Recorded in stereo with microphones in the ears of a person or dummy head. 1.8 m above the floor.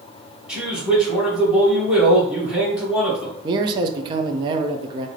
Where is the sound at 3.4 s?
25° right (ahead or behind), 0.5 m.